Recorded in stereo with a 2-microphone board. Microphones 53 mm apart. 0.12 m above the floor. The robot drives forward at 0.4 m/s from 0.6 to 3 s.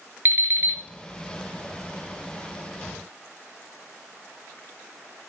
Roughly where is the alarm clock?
Right.